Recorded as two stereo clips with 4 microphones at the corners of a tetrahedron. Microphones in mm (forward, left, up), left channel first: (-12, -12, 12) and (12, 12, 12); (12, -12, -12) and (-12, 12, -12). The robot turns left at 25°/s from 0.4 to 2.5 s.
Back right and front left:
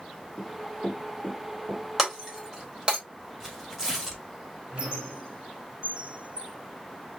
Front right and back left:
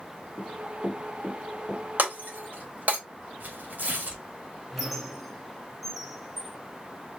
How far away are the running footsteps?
About 1.7 m.